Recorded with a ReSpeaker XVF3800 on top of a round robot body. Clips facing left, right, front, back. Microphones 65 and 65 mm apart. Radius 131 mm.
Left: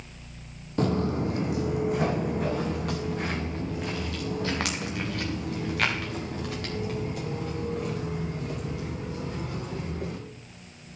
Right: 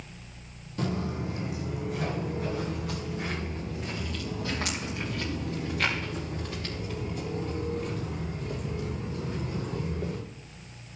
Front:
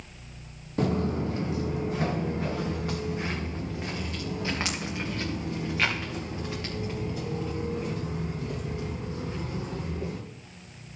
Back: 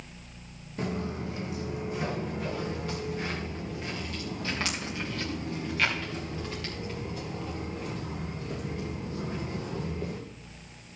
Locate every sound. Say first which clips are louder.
0.8 s footsteps: left 6 dB, front 6 dB; 45° left, 0.6 m; by 10.2 s 75° left, 6.5 m